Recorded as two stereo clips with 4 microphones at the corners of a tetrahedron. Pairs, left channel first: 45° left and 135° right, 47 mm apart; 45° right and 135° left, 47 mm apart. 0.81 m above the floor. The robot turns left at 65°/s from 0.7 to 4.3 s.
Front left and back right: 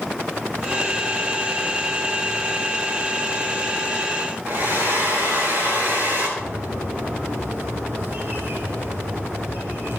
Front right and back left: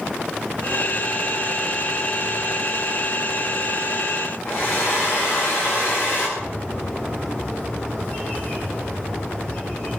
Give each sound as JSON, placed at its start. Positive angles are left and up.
{"t": 4.5, "sound": "a hair dryer", "azimuth_deg": -80, "distance_m": 9.5}
{"t": 6.4, "sound": "a bird", "azimuth_deg": -95, "distance_m": 5.5}